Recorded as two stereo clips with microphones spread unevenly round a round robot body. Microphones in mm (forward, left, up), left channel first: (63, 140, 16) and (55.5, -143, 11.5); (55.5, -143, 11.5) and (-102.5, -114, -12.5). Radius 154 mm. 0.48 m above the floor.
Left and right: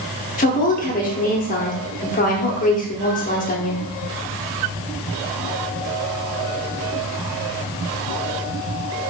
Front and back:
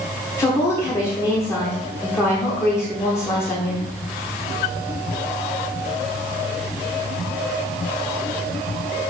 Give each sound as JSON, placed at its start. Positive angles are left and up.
{"t": 0.4, "sound": "a woman speaking", "azimuth_deg": 65, "distance_m": 0.8}